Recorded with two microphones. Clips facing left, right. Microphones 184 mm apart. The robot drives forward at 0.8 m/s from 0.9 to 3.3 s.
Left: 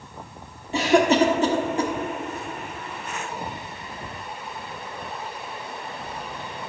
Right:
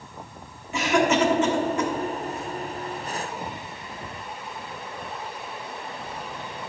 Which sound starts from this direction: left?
A cough, at 0.7 s.